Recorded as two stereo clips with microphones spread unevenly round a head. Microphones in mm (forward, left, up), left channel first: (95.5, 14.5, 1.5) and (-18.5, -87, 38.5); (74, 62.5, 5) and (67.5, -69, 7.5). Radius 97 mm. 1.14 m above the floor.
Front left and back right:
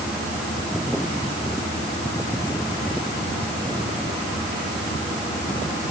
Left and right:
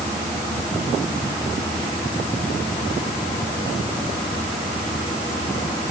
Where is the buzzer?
No buzzer in this recording.